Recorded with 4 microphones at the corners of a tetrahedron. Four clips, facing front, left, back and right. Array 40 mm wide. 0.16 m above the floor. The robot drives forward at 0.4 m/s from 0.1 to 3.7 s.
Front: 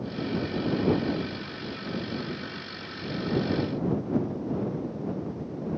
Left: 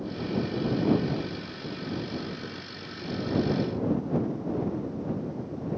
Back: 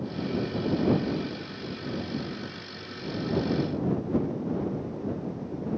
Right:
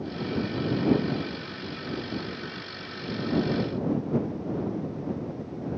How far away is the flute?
No flute in this recording.